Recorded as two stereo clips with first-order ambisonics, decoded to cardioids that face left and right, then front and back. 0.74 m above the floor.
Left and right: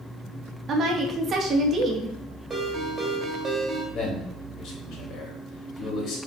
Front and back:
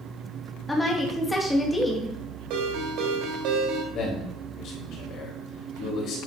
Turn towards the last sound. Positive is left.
turn(degrees=40)